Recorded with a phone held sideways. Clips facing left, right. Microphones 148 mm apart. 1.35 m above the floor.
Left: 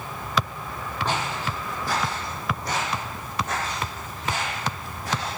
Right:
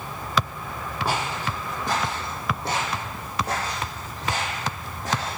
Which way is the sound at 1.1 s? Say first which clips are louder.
Right 1 dB; 10° right (ahead or behind).